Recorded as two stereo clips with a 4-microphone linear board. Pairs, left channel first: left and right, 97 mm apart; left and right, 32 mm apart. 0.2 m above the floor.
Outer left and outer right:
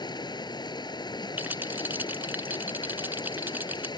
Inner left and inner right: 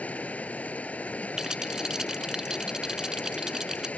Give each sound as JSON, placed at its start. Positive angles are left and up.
{"t": 0.0, "sound": "running water", "side_deg": 45}
{"t": 1.4, "sound": "a rattle", "side_deg": -20}